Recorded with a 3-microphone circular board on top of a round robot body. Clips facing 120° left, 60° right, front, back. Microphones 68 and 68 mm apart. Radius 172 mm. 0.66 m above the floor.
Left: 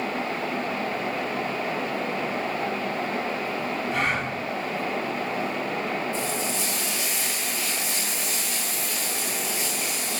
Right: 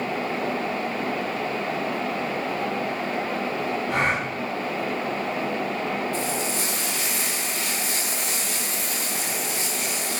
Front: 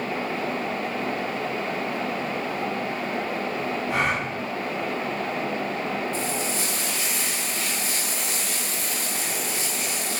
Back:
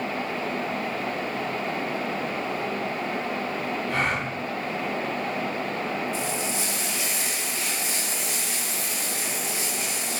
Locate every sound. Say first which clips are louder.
3.9 s a gasp: right 2 dB, front 2 dB; 75° right, 7.5 m
6.1 s frying: right 1 dB, front 1 dB; 40° right, 7.5 m